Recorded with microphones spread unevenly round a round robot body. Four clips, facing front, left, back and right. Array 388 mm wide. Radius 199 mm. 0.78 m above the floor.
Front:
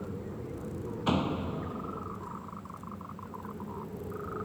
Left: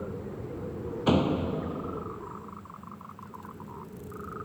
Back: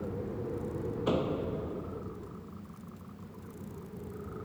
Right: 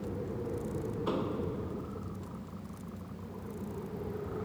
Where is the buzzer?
No buzzer in this recording.